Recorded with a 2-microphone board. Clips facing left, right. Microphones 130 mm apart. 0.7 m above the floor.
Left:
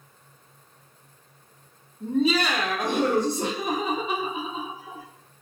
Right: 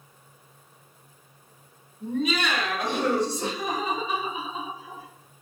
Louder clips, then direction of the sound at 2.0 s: Left 4 dB; 20° left (ahead or behind).